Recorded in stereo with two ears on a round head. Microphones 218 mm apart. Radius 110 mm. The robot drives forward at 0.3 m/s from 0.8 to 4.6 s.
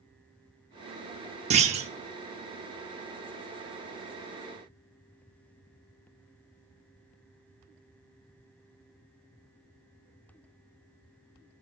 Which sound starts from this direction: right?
A clunk, at 1.5 s.